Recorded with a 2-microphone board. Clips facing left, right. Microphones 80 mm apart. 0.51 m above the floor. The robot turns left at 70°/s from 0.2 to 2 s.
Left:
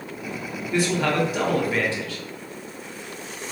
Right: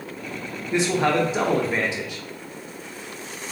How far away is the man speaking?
About 0.7 m.